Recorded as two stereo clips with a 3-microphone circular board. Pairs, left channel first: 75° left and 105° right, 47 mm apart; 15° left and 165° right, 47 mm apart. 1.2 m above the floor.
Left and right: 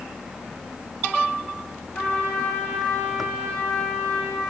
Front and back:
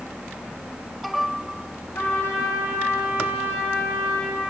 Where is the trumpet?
25° left, 2.5 m.